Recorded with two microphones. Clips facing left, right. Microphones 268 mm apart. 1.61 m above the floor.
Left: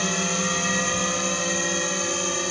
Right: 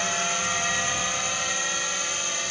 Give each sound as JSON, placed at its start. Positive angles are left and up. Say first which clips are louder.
{"t": 0.0, "sound": "a drone", "louder": "left 7 dB", "side_deg": 50}